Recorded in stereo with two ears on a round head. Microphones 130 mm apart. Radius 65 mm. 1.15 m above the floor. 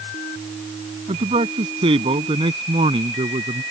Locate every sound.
1.1 s a man speaking: 40° right (ahead or behind); by 3.6 s 35° right (ahead or behind)